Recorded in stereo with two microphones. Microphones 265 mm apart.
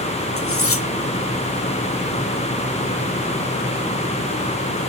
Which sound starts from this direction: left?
Cutlery clinking, at 0.4 s.